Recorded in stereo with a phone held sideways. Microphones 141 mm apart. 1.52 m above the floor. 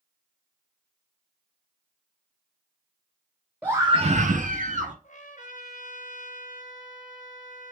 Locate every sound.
3.6 s a scream: 10° right (ahead or behind), 0.6 m; by 4.9 s 65° right (ahead or behind), 1.1 m
5.0 s a trumpet: 65° left (ahead or behind), 0.9 m